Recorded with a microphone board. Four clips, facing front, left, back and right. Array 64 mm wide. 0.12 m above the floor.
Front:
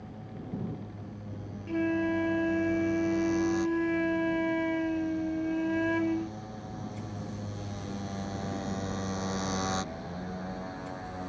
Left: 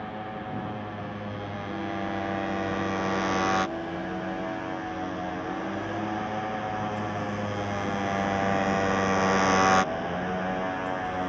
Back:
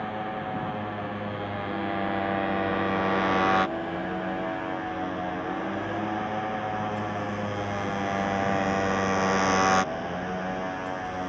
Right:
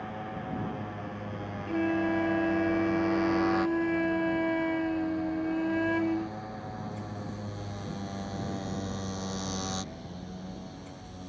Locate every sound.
0.0 s a motorcycle: 170° left; by 11.3 s 120° left
1.7 s a flute: 45° right